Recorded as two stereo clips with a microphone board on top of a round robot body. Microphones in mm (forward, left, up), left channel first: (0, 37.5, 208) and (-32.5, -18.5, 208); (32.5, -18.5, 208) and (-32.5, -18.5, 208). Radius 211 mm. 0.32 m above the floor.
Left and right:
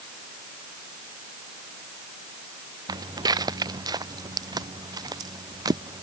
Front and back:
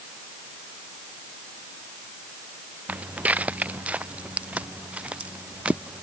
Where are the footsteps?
115° right; by 6.0 s 110° right.